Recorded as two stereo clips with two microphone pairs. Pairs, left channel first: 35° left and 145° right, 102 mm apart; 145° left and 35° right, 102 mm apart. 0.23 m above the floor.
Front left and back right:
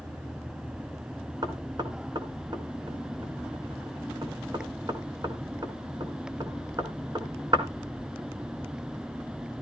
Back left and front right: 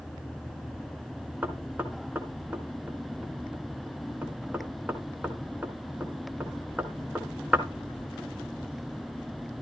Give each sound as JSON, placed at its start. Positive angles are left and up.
{"t": 1.4, "sound": "knocking", "azimuth_deg": -110, "distance_m": 1.8}